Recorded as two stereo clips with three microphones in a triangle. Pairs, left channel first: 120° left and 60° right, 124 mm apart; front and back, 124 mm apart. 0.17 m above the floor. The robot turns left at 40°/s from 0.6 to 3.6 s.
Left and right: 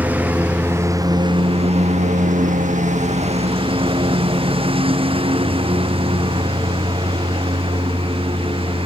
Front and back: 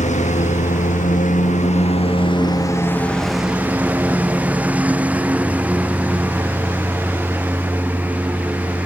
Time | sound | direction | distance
0.0 | a lawn mower | 20° left | ?